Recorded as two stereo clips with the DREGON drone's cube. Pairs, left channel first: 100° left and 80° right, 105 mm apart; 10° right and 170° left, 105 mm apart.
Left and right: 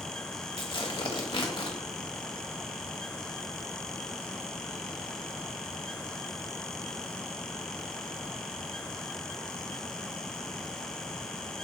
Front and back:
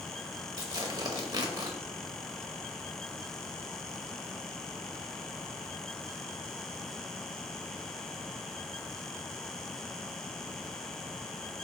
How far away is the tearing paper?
About 0.7 m.